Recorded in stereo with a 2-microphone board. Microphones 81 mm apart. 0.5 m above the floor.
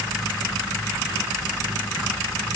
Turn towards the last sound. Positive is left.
No sound to turn to.